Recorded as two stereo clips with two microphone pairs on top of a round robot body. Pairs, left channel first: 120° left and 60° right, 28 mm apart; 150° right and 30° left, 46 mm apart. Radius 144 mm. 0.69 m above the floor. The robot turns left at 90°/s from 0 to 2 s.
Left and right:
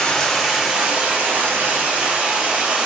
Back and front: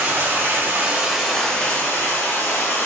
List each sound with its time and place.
0.0 s running water: 70° left, 1.1 m; by 2.9 s 110° right, 1.1 m